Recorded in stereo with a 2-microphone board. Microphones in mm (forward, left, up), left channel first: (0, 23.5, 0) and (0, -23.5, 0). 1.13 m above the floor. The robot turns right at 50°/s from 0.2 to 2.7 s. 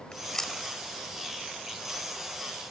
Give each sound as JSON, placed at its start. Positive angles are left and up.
{"t": 0.1, "sound": "chewing", "side_deg": 20}